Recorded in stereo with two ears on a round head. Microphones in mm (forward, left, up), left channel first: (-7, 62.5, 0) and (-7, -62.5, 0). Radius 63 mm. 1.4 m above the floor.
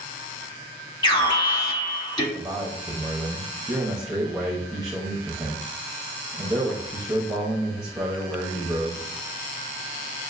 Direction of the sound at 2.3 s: 5° right (ahead or behind).